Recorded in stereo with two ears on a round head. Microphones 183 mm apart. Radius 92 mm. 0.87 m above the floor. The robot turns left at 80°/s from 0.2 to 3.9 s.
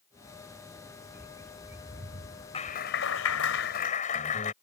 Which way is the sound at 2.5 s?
150° left.